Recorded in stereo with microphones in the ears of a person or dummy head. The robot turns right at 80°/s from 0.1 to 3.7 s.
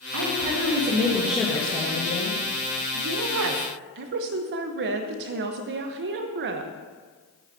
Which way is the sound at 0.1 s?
95° right.